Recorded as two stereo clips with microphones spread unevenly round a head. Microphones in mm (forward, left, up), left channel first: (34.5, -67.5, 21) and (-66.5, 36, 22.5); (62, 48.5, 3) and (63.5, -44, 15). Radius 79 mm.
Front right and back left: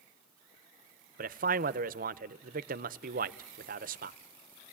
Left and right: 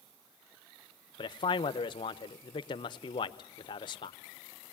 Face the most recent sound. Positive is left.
turn(degrees=120)